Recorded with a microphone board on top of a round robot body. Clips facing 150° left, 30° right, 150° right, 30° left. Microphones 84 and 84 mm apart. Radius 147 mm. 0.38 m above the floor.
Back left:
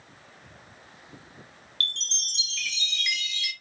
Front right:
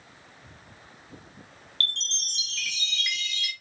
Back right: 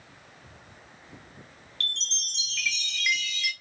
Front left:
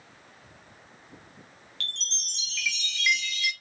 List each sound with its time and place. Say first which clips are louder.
1.8 s a chime: front right 1 dB, back right 3 dB; 65° right, 1.5 m